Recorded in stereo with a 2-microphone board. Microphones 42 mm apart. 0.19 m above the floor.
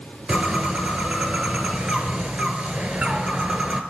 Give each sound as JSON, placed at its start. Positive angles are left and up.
{"t": 0.3, "sound": "a bird", "side_deg": -35, "distance_m": 1.0}